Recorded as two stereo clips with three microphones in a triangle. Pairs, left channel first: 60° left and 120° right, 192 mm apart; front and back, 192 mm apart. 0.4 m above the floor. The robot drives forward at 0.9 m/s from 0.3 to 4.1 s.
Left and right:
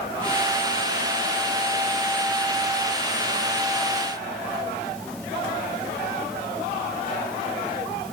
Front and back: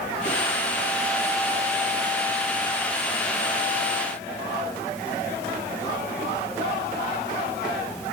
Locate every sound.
Only background noise.